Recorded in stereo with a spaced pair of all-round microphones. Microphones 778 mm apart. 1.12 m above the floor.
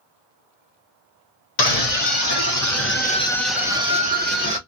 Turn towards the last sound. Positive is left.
turn(degrees=-15)  # may be behind; listen again after turning